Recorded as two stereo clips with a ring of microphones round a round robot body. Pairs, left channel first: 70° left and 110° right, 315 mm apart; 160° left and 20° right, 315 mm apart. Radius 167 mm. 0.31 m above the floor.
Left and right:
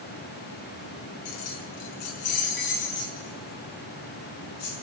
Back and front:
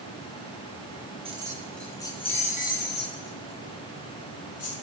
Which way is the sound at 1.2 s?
50° left.